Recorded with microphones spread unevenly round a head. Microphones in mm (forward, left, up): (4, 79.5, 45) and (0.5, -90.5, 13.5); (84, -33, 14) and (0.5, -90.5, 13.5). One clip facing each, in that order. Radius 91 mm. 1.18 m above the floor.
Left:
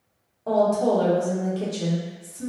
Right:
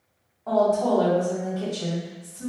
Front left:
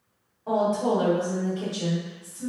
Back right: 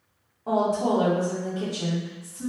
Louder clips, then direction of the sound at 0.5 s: Left 1 dB, even; 145° left.